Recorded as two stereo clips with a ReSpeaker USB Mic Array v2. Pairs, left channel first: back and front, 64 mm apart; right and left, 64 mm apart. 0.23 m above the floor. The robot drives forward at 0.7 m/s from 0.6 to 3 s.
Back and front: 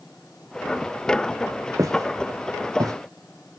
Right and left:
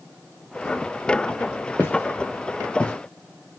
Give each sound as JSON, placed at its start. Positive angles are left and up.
{"t": 1.8, "sound": "footsteps", "azimuth_deg": -30, "distance_m": 2.5}